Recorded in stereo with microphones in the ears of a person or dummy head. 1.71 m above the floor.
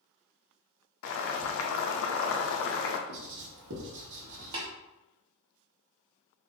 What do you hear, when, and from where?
1.0 s boiling: 70° left (ahead or behind), 0.6 m
3.1 s writing: 65° right (ahead or behind), 1.2 m
4.5 s tapping: 25° right (ahead or behind), 1.0 m